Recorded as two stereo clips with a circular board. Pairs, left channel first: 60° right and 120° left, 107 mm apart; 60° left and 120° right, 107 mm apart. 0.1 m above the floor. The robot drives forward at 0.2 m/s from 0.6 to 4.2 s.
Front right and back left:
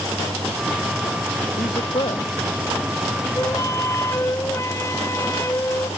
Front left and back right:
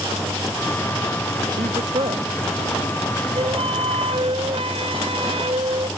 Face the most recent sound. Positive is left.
turn(degrees=-120)